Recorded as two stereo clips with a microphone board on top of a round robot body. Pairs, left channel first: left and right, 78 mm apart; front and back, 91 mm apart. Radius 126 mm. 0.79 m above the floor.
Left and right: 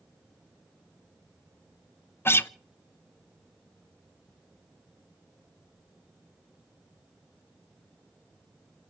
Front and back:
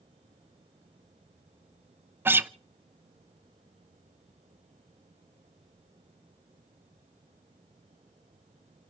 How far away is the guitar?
About 0.6 m.